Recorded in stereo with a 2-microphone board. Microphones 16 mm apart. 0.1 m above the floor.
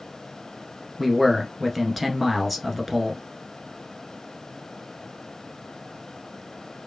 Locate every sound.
1.0 s a man speaking: 5° right (ahead or behind), 1.1 m